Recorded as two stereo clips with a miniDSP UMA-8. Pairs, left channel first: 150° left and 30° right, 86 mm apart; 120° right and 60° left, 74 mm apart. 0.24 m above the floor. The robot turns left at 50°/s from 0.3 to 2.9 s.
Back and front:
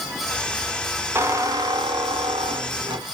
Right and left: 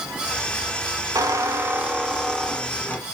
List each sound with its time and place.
1.1 s a squeak: 30° left, 0.5 m; by 3.0 s 55° right, 0.5 m